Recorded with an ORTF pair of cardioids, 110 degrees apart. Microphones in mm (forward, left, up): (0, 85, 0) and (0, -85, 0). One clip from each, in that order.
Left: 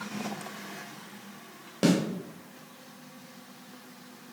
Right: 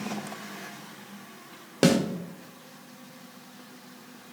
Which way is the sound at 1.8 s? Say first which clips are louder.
Right 4 dB; 35° right.